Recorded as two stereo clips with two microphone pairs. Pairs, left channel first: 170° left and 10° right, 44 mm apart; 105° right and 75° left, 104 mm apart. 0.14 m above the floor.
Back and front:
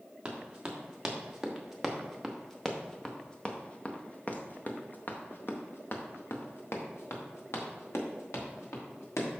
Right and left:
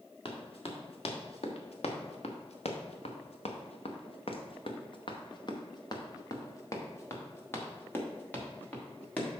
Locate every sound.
0.2 s running footsteps: 80° right, 2.5 m; by 9.3 s 175° left, 3.5 m